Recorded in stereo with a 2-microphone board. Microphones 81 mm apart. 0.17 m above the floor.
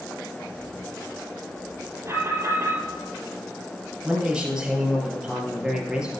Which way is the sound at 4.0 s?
10° right (ahead or behind).